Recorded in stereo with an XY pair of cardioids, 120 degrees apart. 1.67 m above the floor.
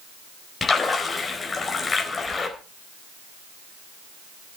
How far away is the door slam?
I don't hear a door slam.